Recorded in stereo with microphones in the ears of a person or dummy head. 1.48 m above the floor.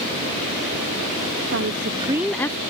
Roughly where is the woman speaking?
Right.